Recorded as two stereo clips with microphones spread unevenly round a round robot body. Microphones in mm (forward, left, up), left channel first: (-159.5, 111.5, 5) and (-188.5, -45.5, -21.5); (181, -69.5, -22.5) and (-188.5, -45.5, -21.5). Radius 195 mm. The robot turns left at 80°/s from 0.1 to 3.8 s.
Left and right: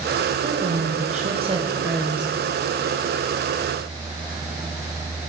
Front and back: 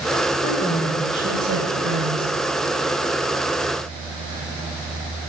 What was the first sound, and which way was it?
A woman speaking, 55° right.